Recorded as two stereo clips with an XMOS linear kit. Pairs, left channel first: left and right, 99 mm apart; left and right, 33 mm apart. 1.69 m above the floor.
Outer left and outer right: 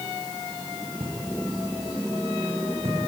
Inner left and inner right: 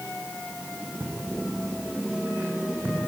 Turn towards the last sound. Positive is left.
turn(degrees=-75)  # may be behind; listen again after turning